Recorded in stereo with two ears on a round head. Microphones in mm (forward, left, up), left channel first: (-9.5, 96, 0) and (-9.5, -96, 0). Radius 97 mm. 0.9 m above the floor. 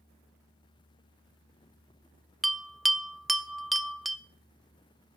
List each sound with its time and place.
2.4 s a bell: centre (ahead or behind), 0.8 m